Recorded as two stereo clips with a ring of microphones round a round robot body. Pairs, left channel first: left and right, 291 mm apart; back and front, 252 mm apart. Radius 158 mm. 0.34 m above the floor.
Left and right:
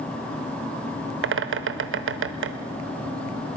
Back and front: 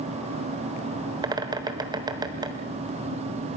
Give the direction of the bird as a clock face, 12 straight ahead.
2 o'clock.